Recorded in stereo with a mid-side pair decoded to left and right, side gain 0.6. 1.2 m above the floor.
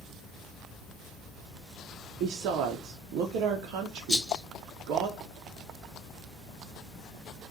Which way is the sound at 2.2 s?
70° right.